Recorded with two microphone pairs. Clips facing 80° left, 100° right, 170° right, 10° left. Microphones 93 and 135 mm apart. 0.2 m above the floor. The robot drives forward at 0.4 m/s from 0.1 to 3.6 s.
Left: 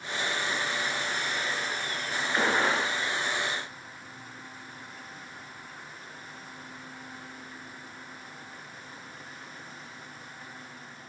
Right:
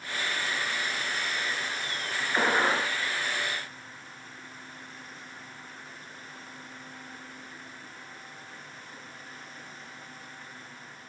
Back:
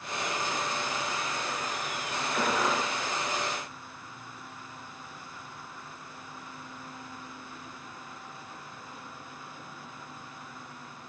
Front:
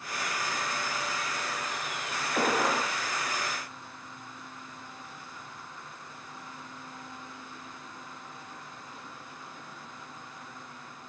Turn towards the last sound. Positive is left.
turn(degrees=-25)